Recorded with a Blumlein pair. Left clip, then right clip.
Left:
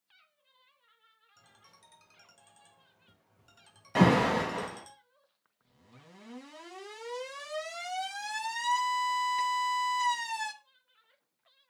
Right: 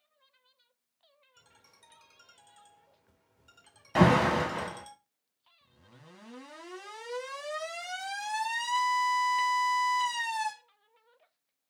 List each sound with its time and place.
1.4 s a ringtone: 5° left, 1.2 m
4.0 s an alarm: straight ahead, 1.8 m